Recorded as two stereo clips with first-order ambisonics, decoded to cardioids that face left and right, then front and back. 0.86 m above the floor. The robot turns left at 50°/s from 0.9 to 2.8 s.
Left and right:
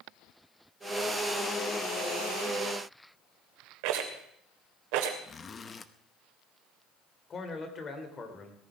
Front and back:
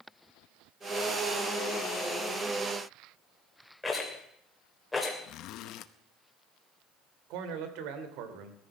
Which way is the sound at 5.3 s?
25° left.